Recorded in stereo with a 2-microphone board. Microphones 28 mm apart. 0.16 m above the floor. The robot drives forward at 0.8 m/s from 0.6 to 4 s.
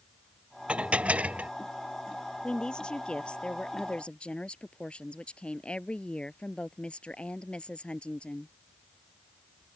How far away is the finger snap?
No finger snap in this recording.